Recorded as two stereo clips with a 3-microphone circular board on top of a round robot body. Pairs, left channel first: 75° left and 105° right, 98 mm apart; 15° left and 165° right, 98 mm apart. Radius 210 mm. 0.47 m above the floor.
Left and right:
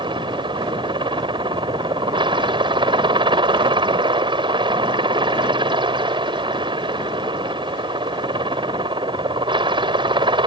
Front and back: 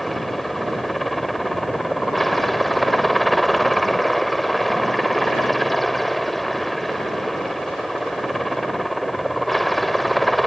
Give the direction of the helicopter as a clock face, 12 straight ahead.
2 o'clock.